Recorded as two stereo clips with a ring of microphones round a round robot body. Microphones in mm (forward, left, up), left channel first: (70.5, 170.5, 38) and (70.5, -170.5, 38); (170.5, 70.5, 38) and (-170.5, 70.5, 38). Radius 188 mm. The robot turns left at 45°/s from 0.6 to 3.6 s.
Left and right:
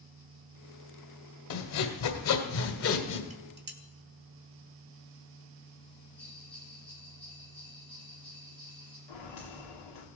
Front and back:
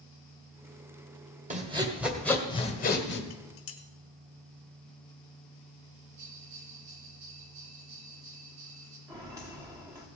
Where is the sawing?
120° left, 1.7 m; by 3.2 s 40° left, 1.7 m.